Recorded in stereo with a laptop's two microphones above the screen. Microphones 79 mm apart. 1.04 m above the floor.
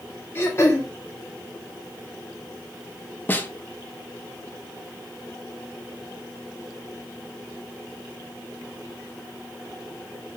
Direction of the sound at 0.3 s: 35° left (ahead or behind).